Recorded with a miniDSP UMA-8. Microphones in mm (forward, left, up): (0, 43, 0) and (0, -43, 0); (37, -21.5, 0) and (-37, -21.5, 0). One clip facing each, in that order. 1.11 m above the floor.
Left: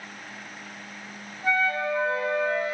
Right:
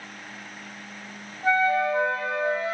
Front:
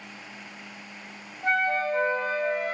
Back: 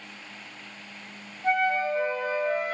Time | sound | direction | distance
1.4 | a flute | 25° right | 0.7 m